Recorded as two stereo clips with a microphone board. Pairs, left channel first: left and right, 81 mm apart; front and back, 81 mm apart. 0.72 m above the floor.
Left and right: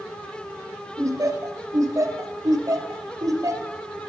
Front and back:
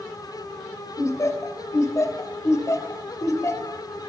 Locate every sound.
1.0 s laughter: 50° right, 2.5 m